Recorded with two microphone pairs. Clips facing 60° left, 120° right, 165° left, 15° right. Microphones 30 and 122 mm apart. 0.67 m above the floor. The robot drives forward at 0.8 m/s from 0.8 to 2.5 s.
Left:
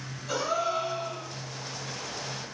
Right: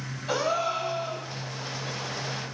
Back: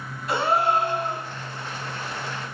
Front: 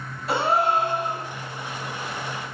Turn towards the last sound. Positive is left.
turn(degrees=-145)